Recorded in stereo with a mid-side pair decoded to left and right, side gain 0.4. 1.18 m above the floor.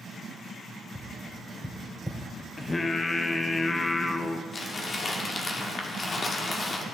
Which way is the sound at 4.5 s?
45° left.